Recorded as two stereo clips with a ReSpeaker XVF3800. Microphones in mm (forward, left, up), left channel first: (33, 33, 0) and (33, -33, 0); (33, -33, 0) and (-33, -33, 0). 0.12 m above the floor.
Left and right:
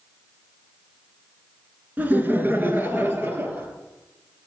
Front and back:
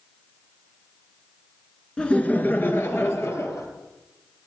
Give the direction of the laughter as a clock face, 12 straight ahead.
2 o'clock.